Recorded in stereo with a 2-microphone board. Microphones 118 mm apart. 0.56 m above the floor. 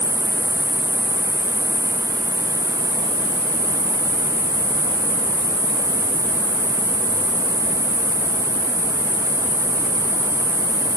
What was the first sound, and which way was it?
An insect, 65° left (ahead or behind).